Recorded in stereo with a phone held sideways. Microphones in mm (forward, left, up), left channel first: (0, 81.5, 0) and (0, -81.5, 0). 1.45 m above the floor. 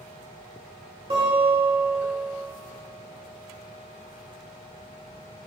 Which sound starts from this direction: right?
A guitar, at 1.1 s.